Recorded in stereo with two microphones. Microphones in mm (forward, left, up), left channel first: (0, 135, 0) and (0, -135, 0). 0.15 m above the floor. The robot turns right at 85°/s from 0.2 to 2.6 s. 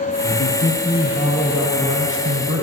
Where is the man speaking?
75° left, 3.5 m; by 2.6 s 80° right, 3.5 m.